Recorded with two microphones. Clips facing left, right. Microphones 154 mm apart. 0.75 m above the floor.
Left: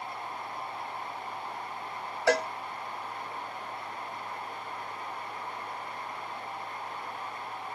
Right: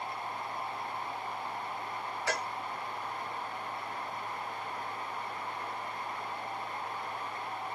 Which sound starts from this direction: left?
A cowbell, at 2.3 s.